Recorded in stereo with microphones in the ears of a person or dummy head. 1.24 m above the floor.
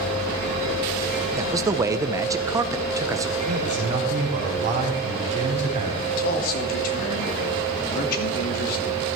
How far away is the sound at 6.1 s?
About 2.5 m.